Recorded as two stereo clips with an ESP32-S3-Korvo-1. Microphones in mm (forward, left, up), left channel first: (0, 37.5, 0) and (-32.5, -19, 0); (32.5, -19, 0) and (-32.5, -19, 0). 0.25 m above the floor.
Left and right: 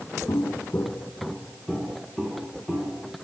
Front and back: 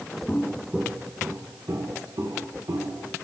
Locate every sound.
0.3 s footsteps: 65° left, 0.8 m; by 3.1 s 155° left, 3 m